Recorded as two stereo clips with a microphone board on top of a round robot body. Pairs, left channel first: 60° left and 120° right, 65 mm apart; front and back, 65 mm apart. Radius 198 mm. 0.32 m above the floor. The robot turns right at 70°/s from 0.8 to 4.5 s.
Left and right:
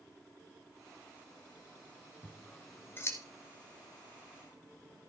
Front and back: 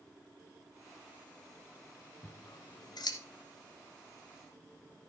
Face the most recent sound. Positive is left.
turn(degrees=110)